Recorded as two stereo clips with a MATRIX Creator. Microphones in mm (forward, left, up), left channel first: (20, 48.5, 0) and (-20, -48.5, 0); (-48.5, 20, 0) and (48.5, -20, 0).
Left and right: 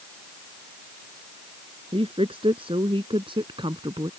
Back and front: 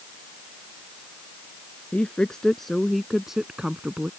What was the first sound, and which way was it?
A woman speaking, 120° right.